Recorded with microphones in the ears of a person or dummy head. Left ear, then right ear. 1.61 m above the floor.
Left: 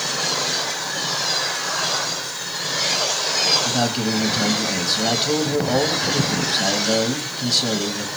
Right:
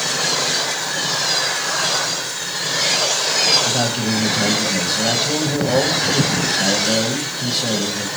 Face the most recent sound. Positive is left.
turn(degrees=10)  # may be behind; listen again after turning